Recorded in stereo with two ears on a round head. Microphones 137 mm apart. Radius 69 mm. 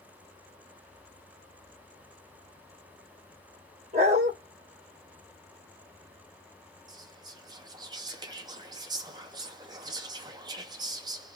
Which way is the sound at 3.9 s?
45° right (ahead or behind).